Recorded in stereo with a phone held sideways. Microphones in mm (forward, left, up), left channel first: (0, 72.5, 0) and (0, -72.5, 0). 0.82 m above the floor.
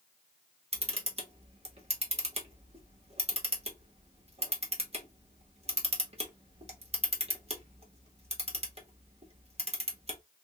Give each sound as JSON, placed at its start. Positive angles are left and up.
{"t": 0.7, "sound": "a camera shutter", "side_deg": -45, "distance_m": 1.3}